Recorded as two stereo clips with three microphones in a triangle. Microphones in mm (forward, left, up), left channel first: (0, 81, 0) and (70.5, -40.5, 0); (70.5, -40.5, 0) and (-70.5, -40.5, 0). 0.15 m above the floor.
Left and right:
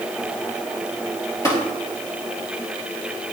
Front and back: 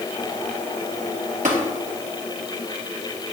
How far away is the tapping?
About 2.5 m.